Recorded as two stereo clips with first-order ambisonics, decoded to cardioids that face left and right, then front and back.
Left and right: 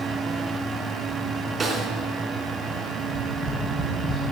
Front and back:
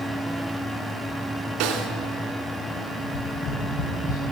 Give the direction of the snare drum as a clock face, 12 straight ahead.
5 o'clock.